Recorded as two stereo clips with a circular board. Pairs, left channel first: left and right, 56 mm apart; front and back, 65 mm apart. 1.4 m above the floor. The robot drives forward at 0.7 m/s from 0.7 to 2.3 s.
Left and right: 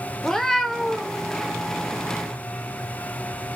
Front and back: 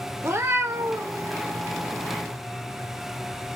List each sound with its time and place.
0.2 s a cat meowing: 170° left, 0.7 m; by 1.2 s 175° left, 1.0 m